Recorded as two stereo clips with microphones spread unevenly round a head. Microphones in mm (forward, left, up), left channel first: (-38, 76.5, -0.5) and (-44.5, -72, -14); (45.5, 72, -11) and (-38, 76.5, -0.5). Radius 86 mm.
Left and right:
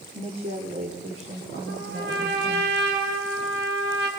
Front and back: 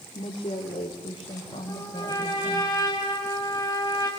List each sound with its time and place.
0.1 s a woman speaking: 35° right, 2.5 m; by 2.7 s 45° right, 4.5 m
1.7 s a trumpet: 80° right, 4.5 m